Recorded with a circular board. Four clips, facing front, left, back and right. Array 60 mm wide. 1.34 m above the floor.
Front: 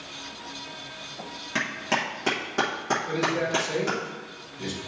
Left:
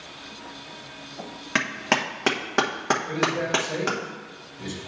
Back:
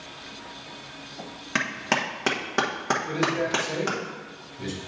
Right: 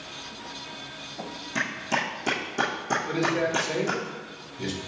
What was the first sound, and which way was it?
A clap, 110° left.